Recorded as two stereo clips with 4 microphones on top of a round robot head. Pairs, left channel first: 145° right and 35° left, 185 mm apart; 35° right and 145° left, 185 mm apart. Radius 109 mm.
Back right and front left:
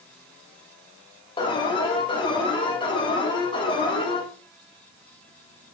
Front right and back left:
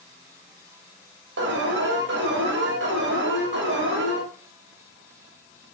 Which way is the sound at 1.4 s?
155° left.